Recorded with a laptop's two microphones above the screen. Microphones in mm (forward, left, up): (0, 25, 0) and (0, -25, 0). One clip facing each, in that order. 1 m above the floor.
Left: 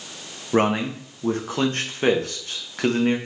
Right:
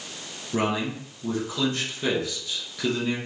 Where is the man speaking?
50° left (ahead or behind), 0.8 m.